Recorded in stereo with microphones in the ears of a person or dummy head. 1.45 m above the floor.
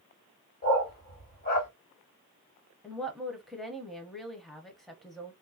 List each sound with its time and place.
0.6 s a dog barking: 50° left (ahead or behind), 2 m
2.8 s a woman speaking: centre (ahead or behind), 0.6 m